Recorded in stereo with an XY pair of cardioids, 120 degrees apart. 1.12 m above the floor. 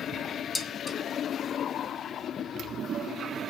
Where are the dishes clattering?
10° left, 1.3 m.